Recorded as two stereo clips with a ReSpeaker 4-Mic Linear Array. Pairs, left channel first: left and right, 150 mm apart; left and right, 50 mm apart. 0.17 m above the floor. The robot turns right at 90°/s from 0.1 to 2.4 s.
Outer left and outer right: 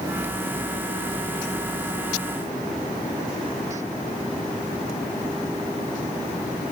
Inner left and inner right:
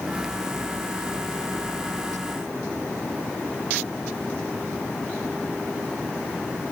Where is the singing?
I don't hear singing.